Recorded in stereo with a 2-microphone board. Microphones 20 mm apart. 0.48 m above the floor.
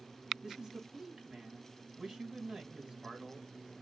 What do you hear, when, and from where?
0.4 s a man speaking: 45° right (ahead or behind), 3 m